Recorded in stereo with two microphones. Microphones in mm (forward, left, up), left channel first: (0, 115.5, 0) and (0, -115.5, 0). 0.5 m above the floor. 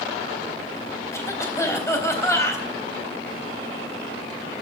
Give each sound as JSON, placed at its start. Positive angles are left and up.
{"t": 1.1, "sound": "a cough", "side_deg": 10, "distance_m": 3.5}